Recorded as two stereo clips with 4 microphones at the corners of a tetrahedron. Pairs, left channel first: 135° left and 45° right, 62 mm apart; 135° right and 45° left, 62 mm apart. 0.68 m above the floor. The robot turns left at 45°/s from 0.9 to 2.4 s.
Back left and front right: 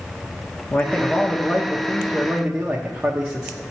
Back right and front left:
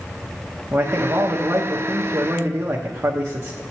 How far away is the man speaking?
About 0.7 m.